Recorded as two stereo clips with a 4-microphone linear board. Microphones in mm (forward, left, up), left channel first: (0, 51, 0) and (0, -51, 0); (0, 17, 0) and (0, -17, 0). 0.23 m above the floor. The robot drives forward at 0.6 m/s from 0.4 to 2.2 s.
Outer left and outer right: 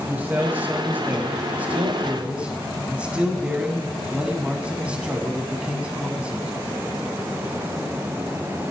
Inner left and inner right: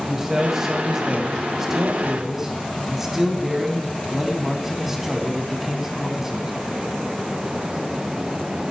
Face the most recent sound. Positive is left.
turn(degrees=-15)  # may be behind; listen again after turning